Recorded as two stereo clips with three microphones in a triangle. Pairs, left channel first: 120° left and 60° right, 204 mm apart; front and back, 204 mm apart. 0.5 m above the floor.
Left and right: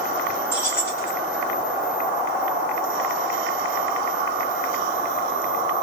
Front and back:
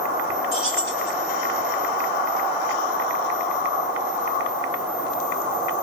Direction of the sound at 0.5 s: 40° left.